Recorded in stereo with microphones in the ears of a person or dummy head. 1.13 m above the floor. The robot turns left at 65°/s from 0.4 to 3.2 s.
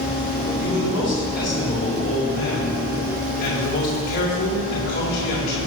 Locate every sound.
0.6 s a man speaking: 135° right, 4 m; by 5.6 s 55° left, 4 m